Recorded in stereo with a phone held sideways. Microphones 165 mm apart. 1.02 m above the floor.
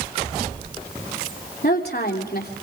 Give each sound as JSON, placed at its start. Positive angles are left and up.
{"t": 1.6, "sound": "a woman speaking", "side_deg": 70, "distance_m": 3.0}